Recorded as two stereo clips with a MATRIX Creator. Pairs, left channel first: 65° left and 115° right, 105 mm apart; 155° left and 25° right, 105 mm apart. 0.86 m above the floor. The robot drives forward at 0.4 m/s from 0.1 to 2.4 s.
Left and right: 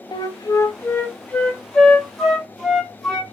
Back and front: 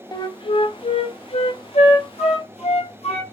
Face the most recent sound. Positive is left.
turn(degrees=155)